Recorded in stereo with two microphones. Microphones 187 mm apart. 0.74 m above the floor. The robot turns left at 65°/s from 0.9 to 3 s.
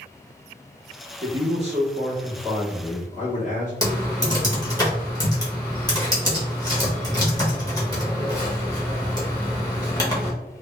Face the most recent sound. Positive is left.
turn(degrees=20)  # may be behind; listen again after turning